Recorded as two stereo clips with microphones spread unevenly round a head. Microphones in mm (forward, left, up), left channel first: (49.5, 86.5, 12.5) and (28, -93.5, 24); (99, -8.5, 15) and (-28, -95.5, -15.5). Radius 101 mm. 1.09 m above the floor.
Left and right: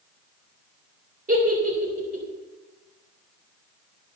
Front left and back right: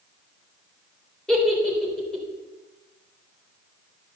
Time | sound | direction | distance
1.3 | a giggle | 50° right | 3 m